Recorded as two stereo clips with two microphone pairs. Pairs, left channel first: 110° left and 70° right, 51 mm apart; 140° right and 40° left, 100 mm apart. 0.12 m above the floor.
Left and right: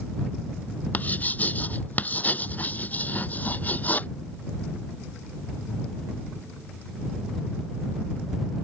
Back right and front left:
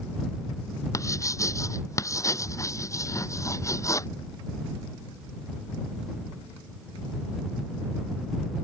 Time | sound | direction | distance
0.9 | writing | 165° left | ?